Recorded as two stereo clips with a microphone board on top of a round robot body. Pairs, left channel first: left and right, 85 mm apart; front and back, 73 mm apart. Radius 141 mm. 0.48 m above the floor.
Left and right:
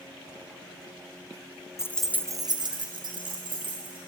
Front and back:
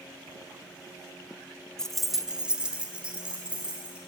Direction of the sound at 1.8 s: 75° left.